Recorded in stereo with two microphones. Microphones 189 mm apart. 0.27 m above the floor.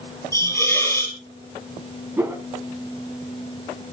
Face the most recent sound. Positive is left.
turn(degrees=-10)  # may be behind; listen again after turning